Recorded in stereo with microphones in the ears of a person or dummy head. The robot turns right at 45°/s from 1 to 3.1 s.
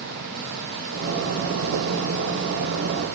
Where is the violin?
No violin in this recording.